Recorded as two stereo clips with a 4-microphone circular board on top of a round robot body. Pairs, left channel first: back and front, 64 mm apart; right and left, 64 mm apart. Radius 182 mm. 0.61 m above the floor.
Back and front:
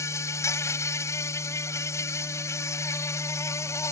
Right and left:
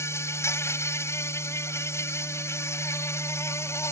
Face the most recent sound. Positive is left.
turn(degrees=-135)